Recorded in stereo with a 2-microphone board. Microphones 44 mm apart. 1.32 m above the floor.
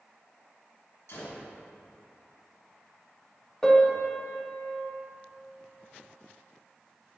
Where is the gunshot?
70° left (ahead or behind), 1.6 m.